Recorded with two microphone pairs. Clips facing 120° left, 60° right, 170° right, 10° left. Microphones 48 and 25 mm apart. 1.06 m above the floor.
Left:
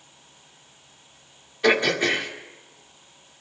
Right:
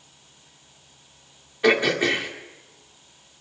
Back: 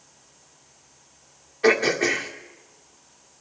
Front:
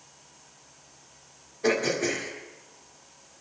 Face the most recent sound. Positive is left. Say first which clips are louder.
# right 1 dB, back 6 dB
turn(degrees=-135)